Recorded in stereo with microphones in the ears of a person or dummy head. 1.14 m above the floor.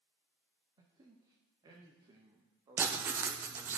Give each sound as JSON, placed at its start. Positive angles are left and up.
{"t": 0.8, "sound": "a man speaking", "side_deg": -20, "distance_m": 0.7}
{"t": 2.8, "sound": "writing", "side_deg": -15, "distance_m": 0.7}